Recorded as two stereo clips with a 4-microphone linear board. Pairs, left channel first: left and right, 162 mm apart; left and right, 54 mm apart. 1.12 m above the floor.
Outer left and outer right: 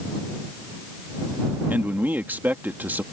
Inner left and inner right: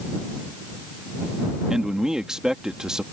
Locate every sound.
1.7 s a man speaking: 10° right (ahead or behind)